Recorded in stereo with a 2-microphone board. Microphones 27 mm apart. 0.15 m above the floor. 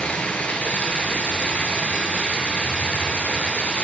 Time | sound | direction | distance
0.0 | running water | 65° left (ahead or behind) | 0.7 m